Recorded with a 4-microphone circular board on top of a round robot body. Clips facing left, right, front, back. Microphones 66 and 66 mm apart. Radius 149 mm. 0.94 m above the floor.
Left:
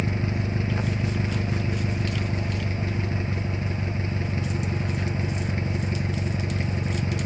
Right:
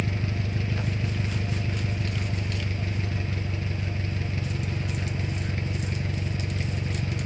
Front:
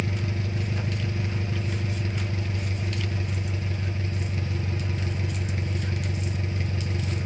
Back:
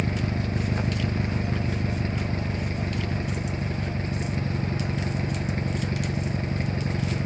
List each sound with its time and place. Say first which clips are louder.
0.0 s an engine running: left 3 dB, back 3 dB; 145° left, 0.8 m